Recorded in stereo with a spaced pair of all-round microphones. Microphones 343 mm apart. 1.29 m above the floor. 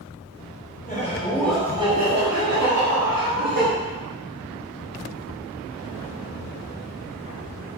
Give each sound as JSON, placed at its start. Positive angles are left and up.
{"t": 0.8, "sound": "laughter", "side_deg": 25, "distance_m": 1.3}